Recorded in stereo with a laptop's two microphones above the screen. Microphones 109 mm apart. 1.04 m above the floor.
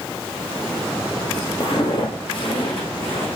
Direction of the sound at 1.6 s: 45° left (ahead or behind).